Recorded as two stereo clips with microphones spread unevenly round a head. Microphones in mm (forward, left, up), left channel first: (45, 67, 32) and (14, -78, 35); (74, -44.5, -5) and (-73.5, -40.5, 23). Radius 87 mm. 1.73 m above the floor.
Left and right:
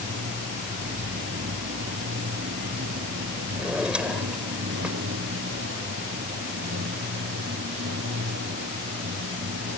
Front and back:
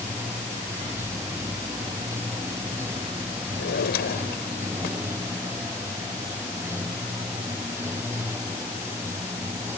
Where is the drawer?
20° right.